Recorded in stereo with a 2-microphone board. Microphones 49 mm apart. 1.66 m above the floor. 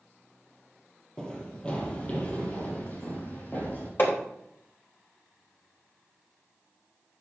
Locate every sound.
1.2 s running footsteps: 15° left (ahead or behind), 2.5 m; by 3.9 s 40° left (ahead or behind), 4 m
4.0 s hammering: 45° left (ahead or behind), 3.5 m